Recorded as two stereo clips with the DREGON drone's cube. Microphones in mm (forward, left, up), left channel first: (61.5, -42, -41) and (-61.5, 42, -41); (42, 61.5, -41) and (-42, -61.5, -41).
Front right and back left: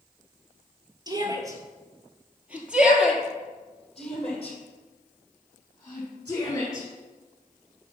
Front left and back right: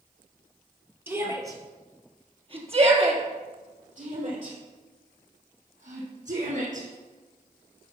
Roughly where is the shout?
Behind.